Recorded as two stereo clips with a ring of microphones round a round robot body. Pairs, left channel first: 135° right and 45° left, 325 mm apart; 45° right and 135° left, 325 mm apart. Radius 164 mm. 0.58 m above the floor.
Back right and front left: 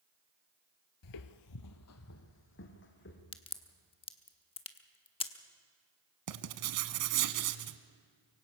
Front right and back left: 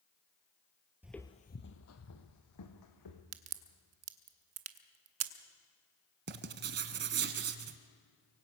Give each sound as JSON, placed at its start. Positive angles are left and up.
{"t": 1.0, "sound": "footsteps", "azimuth_deg": -140, "distance_m": 0.8}
{"t": 3.3, "sound": "a crack", "azimuth_deg": 155, "distance_m": 1.0}
{"t": 6.3, "sound": "writing", "azimuth_deg": 75, "distance_m": 1.1}